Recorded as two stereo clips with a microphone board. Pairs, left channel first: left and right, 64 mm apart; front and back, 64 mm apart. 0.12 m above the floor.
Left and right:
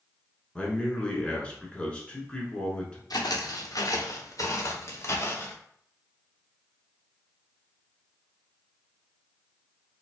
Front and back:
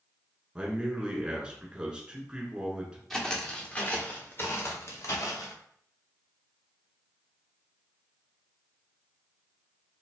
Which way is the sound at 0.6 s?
130° left.